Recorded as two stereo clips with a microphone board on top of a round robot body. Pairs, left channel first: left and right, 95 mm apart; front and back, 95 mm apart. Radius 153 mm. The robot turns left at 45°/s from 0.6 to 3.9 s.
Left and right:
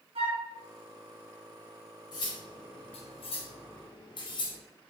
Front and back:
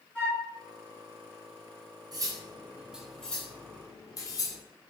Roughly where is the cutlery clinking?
Behind left.